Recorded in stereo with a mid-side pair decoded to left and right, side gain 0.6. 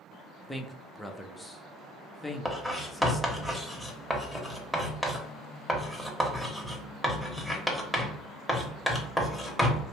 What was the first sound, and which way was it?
A man speaking, 5° left.